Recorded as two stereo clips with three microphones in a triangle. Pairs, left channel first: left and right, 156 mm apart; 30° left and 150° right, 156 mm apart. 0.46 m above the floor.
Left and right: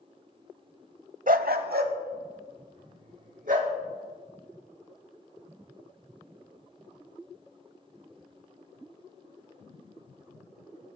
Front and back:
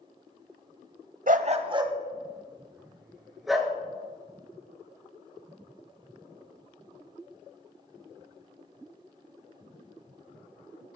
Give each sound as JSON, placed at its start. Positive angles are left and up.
{"t": 1.3, "sound": "a dog barking", "azimuth_deg": -120, "distance_m": 0.8}